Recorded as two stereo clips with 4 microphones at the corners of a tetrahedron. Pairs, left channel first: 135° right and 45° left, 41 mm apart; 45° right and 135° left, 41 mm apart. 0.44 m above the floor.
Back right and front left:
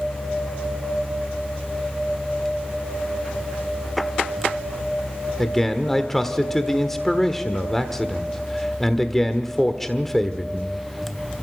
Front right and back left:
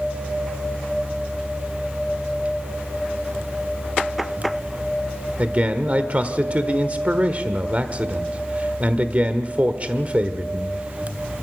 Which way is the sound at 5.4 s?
150° left.